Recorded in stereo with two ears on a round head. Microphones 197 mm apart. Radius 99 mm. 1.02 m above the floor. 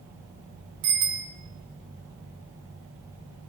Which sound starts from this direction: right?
A bicycle bell, at 0.8 s.